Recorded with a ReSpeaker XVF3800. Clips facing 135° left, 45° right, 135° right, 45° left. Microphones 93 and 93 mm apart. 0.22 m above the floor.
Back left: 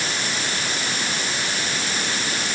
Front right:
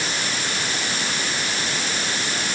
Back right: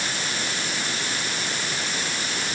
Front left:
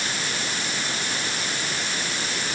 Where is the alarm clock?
I don't hear an alarm clock.